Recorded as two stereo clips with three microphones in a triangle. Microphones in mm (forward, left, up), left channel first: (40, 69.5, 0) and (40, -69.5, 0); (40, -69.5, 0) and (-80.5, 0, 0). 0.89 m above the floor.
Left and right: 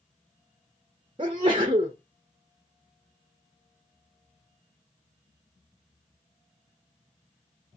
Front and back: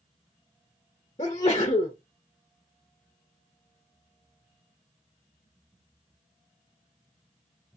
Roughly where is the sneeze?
Ahead right.